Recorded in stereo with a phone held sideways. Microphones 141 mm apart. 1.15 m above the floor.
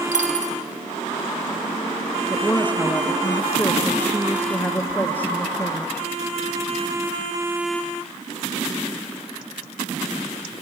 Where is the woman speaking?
15° left (ahead or behind), 0.7 m.